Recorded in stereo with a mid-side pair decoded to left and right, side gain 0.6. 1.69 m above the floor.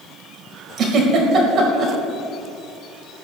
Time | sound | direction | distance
0.8 | a giggle | 50° right | 4 m